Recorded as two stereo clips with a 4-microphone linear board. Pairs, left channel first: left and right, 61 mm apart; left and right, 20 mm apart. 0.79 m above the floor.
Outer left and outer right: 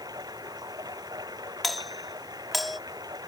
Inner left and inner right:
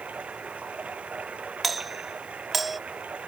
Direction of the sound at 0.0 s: 85° right.